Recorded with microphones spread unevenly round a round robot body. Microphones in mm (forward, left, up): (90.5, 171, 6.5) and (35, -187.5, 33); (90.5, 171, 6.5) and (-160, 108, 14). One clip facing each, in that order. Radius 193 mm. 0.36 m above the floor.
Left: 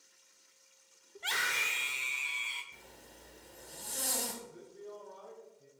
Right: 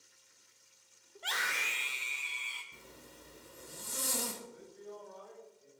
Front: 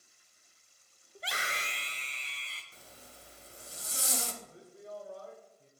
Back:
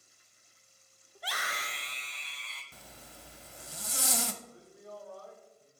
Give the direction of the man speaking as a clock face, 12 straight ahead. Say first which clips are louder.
Left 1 dB, front 1 dB; 10 o'clock.